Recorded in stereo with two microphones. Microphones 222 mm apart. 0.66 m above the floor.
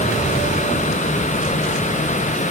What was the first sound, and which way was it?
Only background noise.